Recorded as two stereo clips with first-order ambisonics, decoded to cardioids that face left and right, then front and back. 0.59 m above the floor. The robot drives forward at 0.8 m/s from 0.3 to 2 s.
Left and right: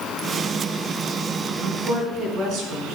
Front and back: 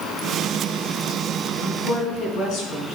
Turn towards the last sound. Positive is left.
turn(degrees=-45)